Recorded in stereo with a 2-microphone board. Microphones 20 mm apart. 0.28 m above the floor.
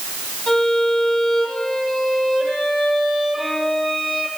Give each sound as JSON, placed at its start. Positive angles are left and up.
{"t": 0.5, "sound": "a violin", "side_deg": 15, "distance_m": 8.5}